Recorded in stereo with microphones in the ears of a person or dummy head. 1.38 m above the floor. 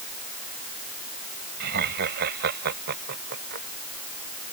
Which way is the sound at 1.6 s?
55° right (ahead or behind).